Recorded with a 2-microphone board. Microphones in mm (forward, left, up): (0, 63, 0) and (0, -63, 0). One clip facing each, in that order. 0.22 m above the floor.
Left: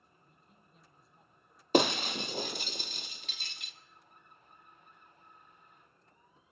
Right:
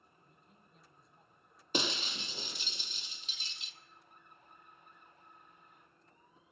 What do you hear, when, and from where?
0.2 s a man speaking: centre (ahead or behind), 1.4 m
1.7 s breaking glass: 60° left (ahead or behind), 0.7 m